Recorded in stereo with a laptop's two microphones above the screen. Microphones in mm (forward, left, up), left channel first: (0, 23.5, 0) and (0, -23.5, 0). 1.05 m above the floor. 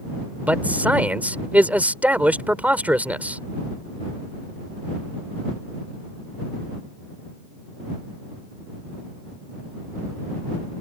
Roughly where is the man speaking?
Right.